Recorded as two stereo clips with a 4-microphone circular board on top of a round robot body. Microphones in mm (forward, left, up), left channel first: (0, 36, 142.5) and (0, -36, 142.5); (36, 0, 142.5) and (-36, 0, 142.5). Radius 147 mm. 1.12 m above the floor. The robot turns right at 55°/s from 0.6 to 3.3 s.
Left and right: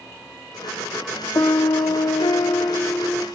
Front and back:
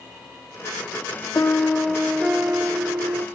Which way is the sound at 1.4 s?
50° left.